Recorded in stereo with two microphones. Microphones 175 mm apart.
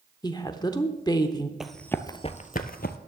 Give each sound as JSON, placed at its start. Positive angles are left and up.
{"t": 0.2, "sound": "a woman speaking", "side_deg": 25, "distance_m": 0.7}
{"t": 1.6, "sound": "running footsteps", "side_deg": -5, "distance_m": 0.8}